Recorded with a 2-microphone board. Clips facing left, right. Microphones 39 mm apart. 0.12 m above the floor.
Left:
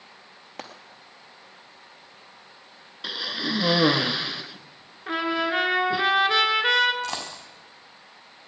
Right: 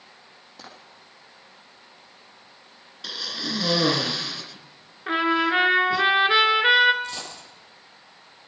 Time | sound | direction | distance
0.6 | frying | 55° left (ahead or behind) | 2.5 m
3.0 | a cough | 20° left (ahead or behind) | 1.4 m
5.1 | a trumpet | 20° right (ahead or behind) | 1.6 m
7.0 | a dropped coin | 85° left | 7 m